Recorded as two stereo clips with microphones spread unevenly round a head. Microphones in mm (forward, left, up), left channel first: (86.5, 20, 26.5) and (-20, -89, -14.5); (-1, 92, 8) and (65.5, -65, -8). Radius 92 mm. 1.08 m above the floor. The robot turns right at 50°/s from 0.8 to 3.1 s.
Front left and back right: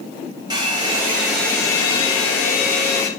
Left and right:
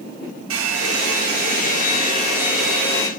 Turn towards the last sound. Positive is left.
turn(degrees=45)